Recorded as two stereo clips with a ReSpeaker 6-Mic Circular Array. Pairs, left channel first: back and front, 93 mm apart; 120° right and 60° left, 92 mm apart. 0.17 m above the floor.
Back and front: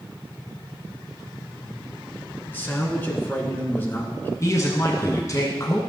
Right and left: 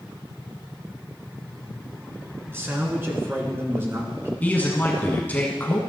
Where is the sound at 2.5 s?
115° left, 2.0 m.